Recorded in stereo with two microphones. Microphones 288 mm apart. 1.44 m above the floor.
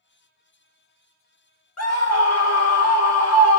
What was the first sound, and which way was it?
A scream, 60° left (ahead or behind).